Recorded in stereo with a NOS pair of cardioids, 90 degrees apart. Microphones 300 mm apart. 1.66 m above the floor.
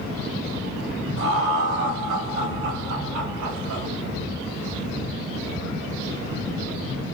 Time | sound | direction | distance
1.2 | laughter | 40° right | 1.1 m